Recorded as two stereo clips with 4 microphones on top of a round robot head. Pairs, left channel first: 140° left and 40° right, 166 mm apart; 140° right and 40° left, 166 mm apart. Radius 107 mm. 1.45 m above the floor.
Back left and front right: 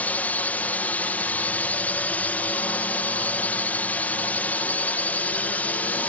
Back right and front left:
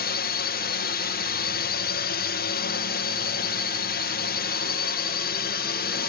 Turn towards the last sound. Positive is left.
turn(degrees=-140)